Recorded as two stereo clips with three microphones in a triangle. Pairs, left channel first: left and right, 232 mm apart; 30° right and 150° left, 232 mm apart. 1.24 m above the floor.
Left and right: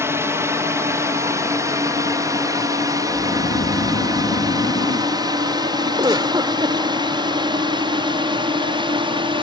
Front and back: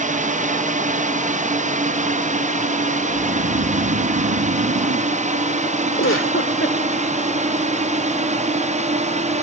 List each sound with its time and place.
0.0 s a drone: 165° right; by 9.4 s 155° right
3.1 s snoring: 140° left
6.0 s a giggle: 20° right